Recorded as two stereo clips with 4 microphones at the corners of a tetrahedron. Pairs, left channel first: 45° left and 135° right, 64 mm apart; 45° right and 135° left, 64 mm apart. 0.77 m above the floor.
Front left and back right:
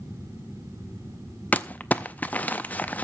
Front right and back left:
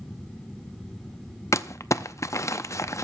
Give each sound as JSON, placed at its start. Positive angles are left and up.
{"t": 1.5, "sound": "crumpling", "azimuth_deg": -20, "distance_m": 0.5}